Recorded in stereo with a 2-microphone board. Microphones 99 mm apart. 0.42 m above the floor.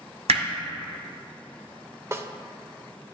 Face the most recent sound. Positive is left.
turn(degrees=-25)  # may be behind; listen again after turning